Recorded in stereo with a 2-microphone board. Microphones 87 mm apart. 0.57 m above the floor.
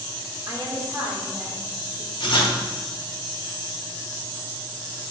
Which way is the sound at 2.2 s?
60° left (ahead or behind).